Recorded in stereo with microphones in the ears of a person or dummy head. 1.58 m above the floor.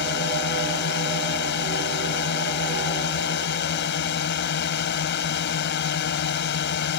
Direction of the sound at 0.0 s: 55° left (ahead or behind).